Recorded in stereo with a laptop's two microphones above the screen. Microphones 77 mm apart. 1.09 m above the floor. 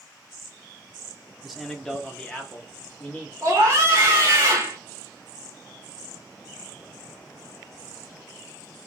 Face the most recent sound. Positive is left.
turn(degrees=-35)  # may be behind; listen again after turning